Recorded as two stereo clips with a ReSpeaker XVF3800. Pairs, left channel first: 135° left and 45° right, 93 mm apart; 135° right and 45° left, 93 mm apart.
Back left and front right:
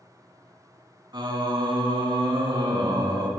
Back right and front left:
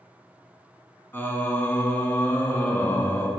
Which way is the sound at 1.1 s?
75° right.